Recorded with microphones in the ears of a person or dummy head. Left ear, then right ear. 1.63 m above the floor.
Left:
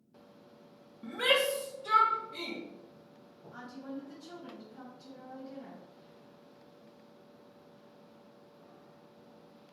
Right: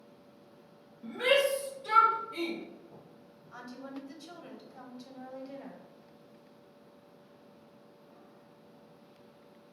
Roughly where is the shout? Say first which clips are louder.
Right 1 dB; left.